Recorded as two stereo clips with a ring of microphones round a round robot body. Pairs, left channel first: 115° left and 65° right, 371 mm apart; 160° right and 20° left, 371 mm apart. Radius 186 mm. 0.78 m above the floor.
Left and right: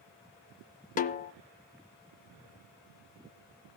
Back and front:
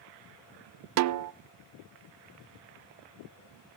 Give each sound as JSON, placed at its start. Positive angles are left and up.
{"t": 1.0, "sound": "a snare drum", "azimuth_deg": 50, "distance_m": 0.6}